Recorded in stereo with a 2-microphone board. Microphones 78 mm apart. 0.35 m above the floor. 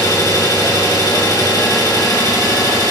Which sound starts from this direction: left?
An engine running, at 0.0 s.